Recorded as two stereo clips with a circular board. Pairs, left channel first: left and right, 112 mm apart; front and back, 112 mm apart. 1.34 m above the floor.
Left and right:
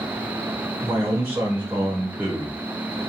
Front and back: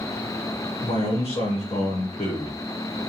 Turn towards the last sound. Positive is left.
turn(degrees=-30)